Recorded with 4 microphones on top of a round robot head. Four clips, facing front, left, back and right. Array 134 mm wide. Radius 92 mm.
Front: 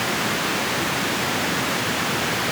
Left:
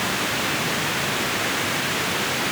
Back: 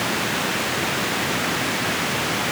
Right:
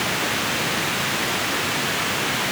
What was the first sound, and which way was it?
Only background noise.